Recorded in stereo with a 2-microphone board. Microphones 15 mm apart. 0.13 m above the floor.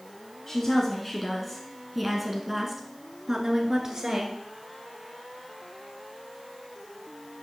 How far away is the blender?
No blender in this recording.